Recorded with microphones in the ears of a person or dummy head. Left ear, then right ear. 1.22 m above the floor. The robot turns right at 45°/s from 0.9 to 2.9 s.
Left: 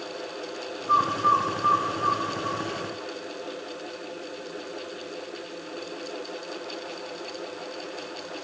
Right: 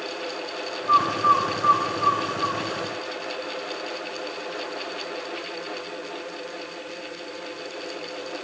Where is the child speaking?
No child speaking in this recording.